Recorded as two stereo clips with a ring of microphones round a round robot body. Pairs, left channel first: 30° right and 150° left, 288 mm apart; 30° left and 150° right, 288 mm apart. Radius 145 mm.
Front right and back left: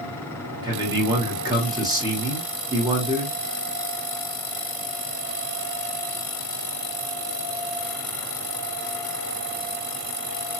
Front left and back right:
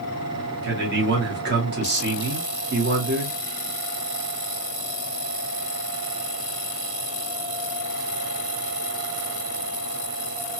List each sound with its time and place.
0.6 s a man speaking: 145° right, 1.0 m